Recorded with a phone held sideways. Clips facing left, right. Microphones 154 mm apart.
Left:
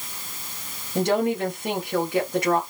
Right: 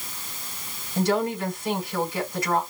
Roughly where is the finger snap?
No finger snap in this recording.